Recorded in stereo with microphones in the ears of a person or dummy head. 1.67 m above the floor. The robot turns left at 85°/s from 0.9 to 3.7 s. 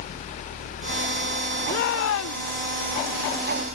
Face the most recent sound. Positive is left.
turn(degrees=-35)